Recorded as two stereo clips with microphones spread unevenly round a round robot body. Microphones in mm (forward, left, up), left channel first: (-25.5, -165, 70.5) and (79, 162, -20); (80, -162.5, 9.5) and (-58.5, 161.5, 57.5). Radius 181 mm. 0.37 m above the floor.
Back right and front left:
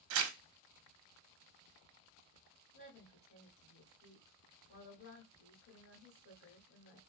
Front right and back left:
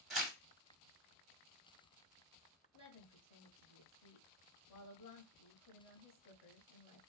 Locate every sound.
0.1 s tearing paper: 25° left, 0.6 m
2.7 s a woman speaking: 65° right, 1.6 m